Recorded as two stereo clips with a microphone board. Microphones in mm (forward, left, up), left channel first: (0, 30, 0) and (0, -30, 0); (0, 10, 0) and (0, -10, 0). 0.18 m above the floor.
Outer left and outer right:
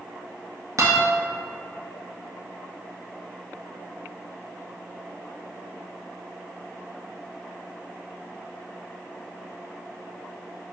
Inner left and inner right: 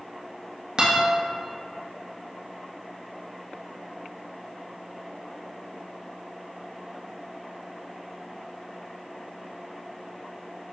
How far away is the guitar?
About 1.6 m.